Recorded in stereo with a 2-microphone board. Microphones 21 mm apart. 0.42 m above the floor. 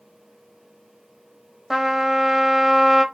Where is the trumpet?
20° right (ahead or behind), 0.7 m.